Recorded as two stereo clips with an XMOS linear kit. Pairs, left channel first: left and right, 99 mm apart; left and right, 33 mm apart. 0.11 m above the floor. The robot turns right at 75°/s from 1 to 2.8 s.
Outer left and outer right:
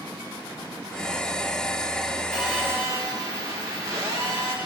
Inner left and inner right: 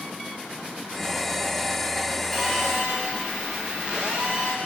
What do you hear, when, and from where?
2.3 s a phone buzzing: straight behind, 7.5 m; by 4.5 s 145° right, 7.5 m